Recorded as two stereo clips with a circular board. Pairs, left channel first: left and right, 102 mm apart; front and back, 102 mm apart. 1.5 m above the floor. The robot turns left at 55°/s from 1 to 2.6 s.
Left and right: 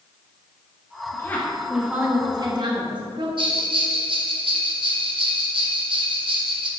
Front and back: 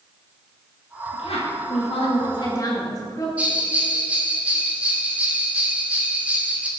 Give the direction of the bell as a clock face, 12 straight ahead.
4 o'clock.